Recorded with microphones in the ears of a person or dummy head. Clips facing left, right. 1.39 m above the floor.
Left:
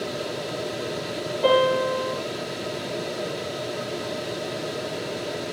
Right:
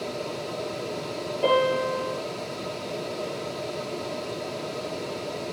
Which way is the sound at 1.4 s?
40° right (ahead or behind).